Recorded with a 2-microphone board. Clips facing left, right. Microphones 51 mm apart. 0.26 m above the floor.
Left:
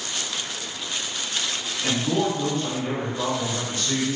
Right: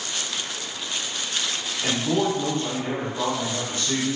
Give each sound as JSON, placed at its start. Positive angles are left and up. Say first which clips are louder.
{"t": 1.8, "sound": "a man speaking", "louder": "even", "side_deg": -25, "distance_m": 1.1}